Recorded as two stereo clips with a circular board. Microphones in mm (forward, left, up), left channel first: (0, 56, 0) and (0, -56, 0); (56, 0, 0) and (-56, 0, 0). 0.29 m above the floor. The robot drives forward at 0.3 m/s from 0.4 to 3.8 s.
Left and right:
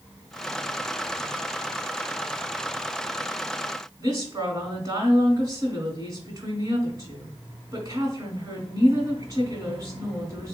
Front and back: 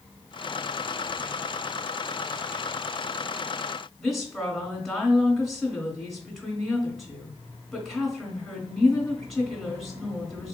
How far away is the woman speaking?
About 1.5 m.